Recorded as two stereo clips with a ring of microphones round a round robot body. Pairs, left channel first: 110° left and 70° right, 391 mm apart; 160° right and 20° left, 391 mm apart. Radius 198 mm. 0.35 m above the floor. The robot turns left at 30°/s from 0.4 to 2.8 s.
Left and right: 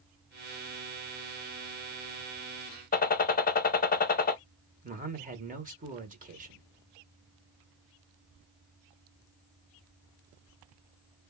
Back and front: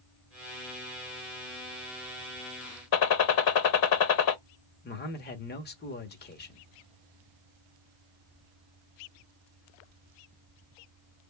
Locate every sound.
2.9 s a gunshot: straight behind, 1.0 m
4.8 s a man speaking: 120° right, 1.1 m